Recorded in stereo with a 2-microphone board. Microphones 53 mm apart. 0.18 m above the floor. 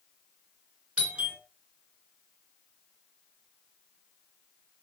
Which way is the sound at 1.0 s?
20° right (ahead or behind).